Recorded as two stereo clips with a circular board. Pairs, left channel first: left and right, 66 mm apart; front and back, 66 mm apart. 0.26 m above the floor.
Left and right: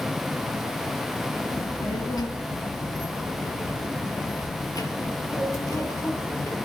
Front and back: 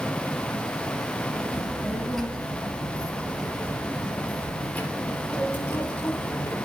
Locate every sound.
1.5 s a child speaking: 90° left, 3.5 m; by 6.6 s 55° left, 4.5 m